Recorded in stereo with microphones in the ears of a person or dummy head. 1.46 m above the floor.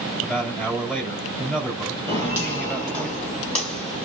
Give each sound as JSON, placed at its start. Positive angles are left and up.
{"t": 0.2, "sound": "a man speaking", "side_deg": -5, "distance_m": 3.5}
{"t": 2.1, "sound": "footsteps", "side_deg": 20, "distance_m": 2.0}